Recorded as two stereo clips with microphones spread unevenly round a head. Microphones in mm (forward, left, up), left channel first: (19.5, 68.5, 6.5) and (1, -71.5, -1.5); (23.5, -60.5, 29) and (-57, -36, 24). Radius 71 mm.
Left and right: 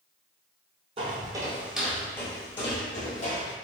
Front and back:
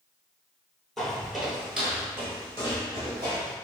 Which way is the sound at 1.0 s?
95° right.